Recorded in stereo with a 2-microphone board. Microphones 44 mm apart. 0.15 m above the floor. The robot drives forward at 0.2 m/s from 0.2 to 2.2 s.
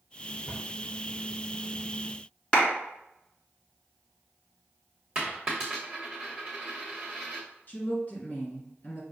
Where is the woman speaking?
30° left (ahead or behind), 1.6 m.